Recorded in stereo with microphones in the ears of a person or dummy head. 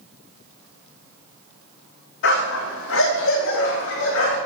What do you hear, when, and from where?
2.2 s a dog barking: 70° left (ahead or behind), 3.5 m; by 4.4 s 60° left (ahead or behind), 6 m